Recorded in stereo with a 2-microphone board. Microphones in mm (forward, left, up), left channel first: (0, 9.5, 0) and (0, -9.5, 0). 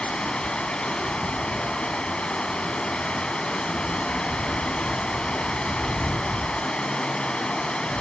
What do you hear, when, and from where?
0.0 s running water: 70° left (ahead or behind), 0.9 m